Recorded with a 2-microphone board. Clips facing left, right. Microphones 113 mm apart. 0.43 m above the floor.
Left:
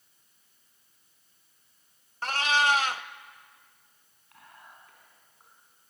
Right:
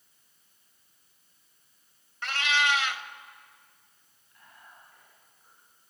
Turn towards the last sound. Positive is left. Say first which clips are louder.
# left 2 dB
turn(degrees=75)  # may be behind; listen again after turning